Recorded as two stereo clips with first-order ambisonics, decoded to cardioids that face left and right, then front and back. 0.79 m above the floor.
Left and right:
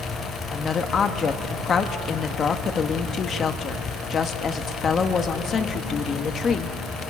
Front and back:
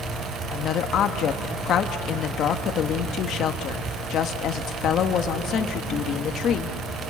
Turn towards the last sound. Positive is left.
turn(degrees=35)